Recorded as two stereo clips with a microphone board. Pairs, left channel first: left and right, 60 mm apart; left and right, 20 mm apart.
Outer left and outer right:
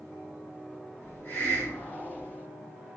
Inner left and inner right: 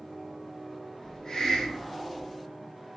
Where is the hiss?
40° left (ahead or behind), 1.2 m.